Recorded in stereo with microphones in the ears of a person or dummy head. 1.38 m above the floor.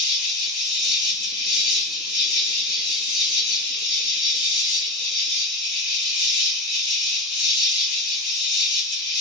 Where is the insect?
50° left (ahead or behind), 0.9 m.